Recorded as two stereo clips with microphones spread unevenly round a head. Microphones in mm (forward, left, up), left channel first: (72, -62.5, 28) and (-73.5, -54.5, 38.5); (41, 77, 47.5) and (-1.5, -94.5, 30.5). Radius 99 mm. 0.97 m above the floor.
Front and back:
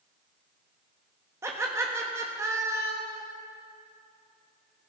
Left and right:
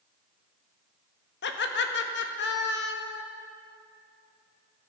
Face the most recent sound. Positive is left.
turn(degrees=100)